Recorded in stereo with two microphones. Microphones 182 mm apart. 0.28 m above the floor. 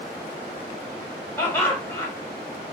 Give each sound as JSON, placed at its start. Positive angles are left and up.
{"t": 1.4, "sound": "laughter", "side_deg": 10, "distance_m": 1.5}